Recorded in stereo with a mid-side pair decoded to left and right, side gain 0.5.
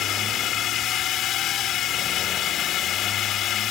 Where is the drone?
65° left.